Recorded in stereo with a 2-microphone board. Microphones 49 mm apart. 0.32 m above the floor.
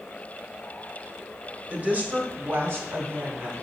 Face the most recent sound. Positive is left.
turn(degrees=-50)  # may be behind; listen again after turning